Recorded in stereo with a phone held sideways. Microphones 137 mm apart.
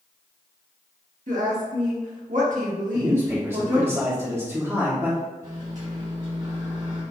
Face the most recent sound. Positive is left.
turn(degrees=-60)  # may be behind; listen again after turning